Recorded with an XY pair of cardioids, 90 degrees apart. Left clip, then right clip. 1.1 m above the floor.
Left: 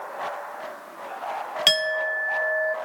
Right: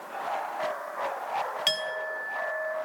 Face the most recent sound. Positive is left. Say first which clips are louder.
# left 12 dB
turn(degrees=55)